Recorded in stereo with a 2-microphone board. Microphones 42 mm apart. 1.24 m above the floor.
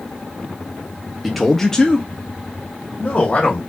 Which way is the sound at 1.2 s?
5° right (ahead or behind).